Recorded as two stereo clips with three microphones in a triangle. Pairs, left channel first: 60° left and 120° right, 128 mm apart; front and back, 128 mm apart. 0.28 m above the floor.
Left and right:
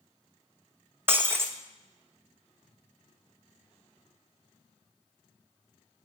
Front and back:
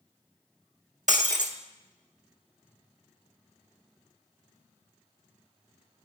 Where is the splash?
I don't hear a splash.